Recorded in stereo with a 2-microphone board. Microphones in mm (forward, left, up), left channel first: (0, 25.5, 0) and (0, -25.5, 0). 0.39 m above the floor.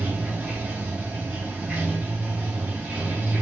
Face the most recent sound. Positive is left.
turn(degrees=-30)  # may be behind; listen again after turning